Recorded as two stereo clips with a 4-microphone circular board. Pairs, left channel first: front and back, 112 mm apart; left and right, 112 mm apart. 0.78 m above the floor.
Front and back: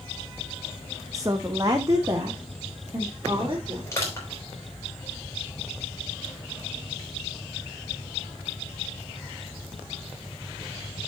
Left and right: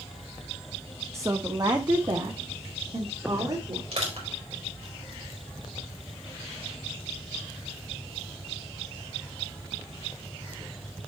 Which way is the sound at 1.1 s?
140° right.